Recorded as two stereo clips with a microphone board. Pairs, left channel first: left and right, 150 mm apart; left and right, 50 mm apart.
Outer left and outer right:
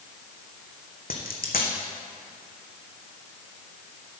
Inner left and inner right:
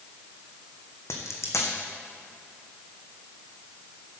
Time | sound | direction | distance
1.1 | a dropped coin | 85° left | 1.4 m